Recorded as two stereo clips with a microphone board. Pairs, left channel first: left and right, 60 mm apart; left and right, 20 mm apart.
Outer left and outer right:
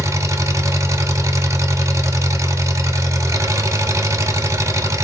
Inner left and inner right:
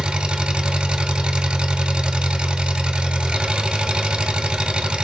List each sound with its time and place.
0.0 s an engine running: 50° right (ahead or behind), 0.9 m